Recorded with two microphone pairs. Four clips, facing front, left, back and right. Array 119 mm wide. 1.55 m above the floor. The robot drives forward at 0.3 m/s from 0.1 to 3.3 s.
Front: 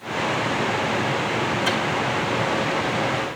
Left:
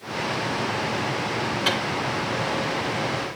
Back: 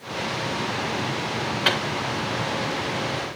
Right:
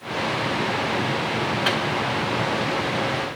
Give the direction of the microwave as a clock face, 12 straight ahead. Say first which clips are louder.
Right 1 dB, back 3 dB; 6 o'clock.